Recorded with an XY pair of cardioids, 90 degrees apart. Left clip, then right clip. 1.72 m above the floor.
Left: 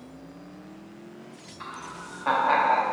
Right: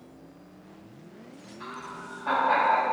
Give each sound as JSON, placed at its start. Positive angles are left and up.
{"t": 1.6, "sound": "laughter", "azimuth_deg": 60, "distance_m": 1.2}